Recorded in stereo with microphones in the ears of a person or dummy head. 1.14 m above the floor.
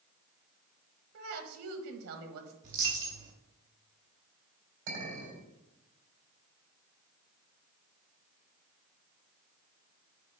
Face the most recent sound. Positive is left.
turn(degrees=-60)  # may be behind; listen again after turning